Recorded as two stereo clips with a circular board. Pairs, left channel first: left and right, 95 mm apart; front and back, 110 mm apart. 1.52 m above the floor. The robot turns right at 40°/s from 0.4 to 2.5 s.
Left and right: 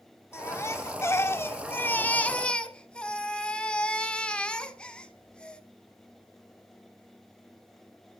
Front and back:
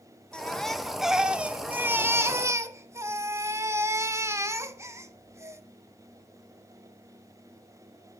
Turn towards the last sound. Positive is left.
turn(degrees=155)